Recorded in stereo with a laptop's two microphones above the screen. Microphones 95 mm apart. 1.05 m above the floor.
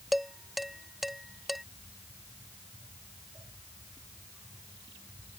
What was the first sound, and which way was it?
Dishes clattering, centre (ahead or behind).